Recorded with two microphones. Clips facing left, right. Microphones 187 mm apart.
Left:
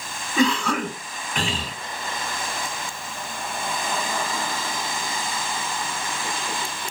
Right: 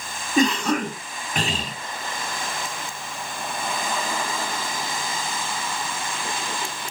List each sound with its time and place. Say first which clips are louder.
0.4 s a cough: right 1 dB; 45° right (ahead or behind), 1.9 m